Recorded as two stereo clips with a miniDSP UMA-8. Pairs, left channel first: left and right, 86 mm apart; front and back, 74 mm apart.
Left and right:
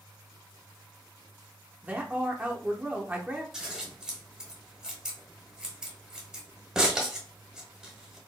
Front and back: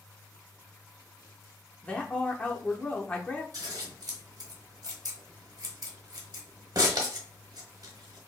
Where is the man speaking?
50° right, 0.8 m.